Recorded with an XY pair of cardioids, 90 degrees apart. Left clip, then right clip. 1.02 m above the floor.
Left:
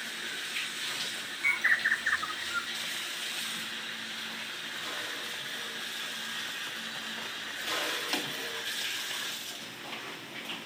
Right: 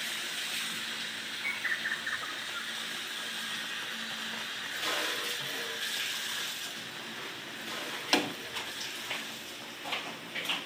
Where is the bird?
55° left, 0.8 m.